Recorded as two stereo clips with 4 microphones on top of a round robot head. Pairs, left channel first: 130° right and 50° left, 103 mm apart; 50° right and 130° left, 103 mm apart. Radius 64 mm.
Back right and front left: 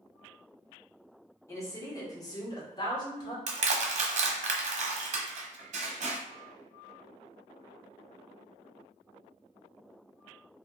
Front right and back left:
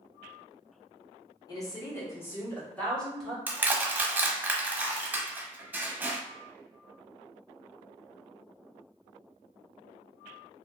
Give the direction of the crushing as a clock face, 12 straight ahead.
10 o'clock.